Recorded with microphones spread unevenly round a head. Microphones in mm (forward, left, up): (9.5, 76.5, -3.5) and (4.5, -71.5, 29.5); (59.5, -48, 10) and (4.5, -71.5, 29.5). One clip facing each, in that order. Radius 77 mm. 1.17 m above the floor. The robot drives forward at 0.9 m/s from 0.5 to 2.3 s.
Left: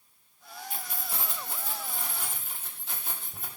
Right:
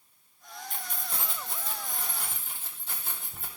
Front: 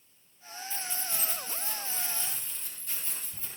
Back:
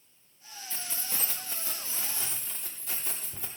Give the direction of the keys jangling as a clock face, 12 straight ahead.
6 o'clock.